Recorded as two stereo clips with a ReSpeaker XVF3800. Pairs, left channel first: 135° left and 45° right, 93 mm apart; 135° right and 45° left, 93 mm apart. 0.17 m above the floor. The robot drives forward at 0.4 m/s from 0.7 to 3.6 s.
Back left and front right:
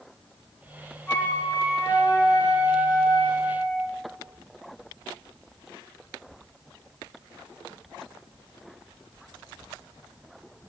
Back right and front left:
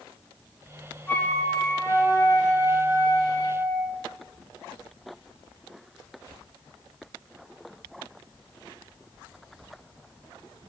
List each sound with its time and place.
1.1 s a flute: straight behind, 1.0 m